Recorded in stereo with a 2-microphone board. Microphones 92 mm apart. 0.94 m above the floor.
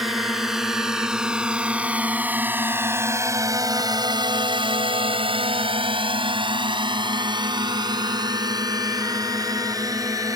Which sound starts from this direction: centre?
A drone, at 0.0 s.